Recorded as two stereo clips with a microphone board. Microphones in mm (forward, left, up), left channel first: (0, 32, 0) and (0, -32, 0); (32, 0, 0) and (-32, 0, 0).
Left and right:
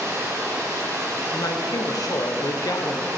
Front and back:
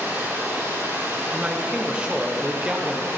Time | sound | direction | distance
0.0 | running water | 125° right | 1.8 m
1.3 | a man speaking | 105° left | 0.8 m